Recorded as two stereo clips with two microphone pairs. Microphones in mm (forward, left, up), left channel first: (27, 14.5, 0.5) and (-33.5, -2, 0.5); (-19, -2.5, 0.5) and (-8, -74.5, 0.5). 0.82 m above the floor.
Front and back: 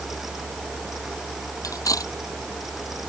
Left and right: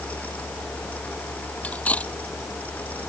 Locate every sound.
1.6 s cutlery clinking: 30° left